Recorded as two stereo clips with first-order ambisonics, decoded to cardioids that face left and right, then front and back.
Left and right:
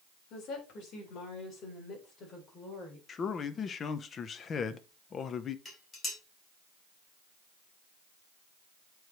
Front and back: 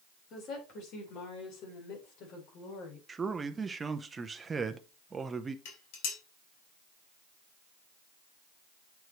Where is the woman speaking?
45° left, 4 m; by 3.0 s 25° left, 4.5 m.